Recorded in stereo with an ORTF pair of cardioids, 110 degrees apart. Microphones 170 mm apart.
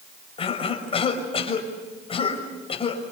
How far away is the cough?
About 6 m.